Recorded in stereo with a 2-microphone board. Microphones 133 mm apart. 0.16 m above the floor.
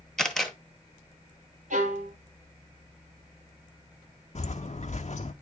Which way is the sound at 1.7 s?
75° right (ahead or behind).